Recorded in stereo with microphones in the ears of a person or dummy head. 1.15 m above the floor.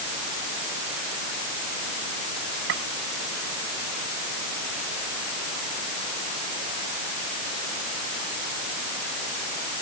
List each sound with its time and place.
2.7 s a gunshot: 60° right (ahead or behind)